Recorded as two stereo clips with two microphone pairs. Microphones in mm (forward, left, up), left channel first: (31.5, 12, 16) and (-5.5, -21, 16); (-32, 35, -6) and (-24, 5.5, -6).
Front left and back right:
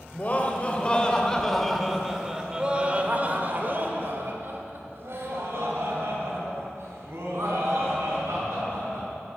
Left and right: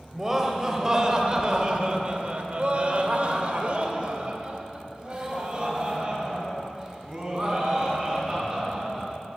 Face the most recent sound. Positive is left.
turn(degrees=-140)